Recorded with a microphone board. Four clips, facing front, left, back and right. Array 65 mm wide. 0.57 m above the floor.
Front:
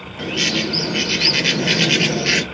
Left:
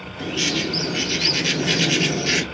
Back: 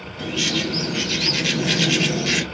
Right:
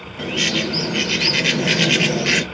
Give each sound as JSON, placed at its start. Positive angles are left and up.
{"t": 0.2, "sound": "a bird", "azimuth_deg": -55, "distance_m": 0.6}